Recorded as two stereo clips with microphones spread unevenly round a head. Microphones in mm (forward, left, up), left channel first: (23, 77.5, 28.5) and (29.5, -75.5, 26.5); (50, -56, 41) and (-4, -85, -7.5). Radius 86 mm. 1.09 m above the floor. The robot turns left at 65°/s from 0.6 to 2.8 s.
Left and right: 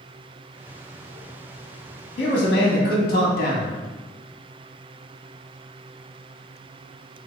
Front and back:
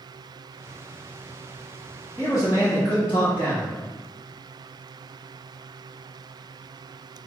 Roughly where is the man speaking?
Left.